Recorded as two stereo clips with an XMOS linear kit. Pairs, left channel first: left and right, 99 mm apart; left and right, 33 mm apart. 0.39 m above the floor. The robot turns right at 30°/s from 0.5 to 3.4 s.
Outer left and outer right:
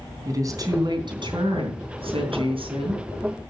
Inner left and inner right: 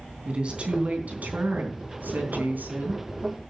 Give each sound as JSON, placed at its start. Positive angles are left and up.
{"t": 0.2, "sound": "a woman speaking", "azimuth_deg": -140, "distance_m": 3.5}